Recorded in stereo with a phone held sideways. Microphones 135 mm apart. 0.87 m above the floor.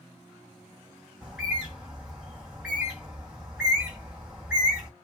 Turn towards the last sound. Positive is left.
turn(degrees=-5)  # may be behind; listen again after turning